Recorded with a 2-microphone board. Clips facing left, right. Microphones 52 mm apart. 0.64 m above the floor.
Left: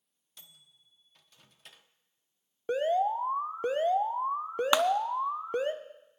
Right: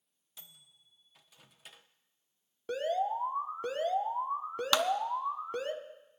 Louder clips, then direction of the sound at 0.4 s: Even; 5° right (ahead or behind).